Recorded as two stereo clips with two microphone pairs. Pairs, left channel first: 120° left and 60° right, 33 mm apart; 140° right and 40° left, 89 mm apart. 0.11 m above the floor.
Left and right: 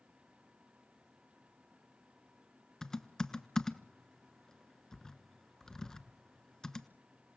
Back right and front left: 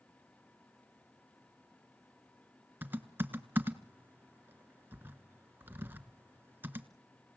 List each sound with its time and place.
2.8 s typing on a keyboard: 65° left, 1.2 m